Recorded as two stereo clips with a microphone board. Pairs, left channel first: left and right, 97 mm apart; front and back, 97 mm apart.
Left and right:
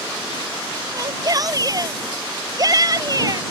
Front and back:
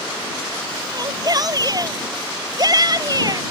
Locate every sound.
0.9 s a shout: 135° right